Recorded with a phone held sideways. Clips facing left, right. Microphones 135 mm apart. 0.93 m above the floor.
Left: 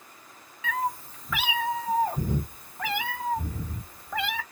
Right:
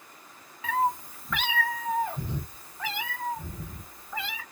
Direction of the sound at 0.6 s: 35° right (ahead or behind).